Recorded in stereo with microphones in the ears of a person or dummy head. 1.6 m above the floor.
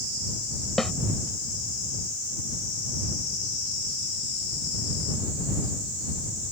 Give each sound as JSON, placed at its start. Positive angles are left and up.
{"t": 0.8, "sound": "a snare drum", "side_deg": 0}